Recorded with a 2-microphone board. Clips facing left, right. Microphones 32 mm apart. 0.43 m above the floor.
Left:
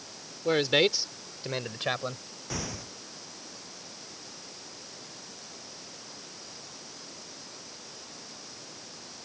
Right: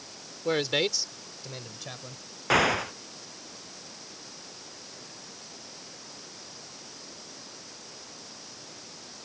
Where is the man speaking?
Centre (ahead or behind); by 2.2 s 60° left (ahead or behind).